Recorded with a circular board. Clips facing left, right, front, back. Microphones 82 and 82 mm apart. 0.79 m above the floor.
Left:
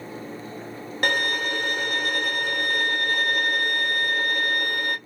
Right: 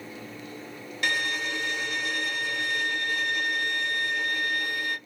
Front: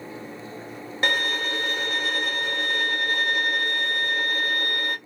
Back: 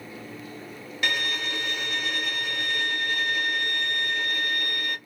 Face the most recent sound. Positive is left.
turn(degrees=50)